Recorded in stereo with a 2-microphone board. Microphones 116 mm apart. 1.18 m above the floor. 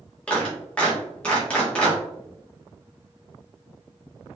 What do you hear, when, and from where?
0.3 s a clap: 10° left (ahead or behind), 1.6 m